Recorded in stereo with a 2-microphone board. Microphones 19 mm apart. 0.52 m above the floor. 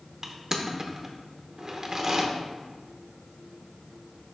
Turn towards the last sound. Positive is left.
turn(degrees=-25)  # may be behind; listen again after turning